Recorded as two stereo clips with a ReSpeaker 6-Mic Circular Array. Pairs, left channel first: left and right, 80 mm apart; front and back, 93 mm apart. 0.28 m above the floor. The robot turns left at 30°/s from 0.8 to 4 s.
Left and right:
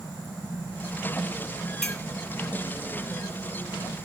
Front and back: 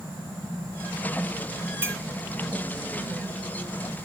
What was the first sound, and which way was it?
A clink, 165° left.